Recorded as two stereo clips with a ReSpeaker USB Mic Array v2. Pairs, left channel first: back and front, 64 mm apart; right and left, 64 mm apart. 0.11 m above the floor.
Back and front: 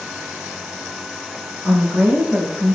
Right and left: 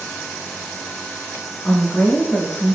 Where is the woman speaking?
55° right, 1.1 m.